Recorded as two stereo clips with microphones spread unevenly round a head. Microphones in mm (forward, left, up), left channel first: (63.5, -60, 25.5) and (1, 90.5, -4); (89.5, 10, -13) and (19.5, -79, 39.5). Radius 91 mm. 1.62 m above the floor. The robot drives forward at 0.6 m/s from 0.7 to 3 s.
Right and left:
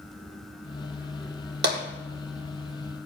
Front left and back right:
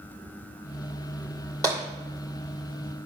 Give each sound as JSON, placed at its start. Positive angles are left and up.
{"t": 1.6, "sound": "tapping", "azimuth_deg": 145, "distance_m": 2.0}